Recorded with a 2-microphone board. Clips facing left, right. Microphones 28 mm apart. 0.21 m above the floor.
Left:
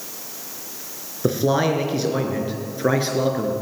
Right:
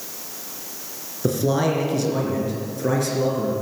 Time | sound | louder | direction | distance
1.2 | a man speaking | left 1 dB | 25° left (ahead or behind) | 3.5 m